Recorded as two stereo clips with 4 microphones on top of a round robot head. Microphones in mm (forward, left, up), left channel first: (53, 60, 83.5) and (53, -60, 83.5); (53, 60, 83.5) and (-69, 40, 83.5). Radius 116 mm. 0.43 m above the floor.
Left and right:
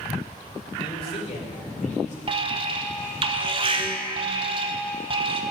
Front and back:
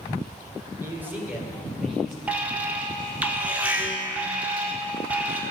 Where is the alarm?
95° right, 1.0 m.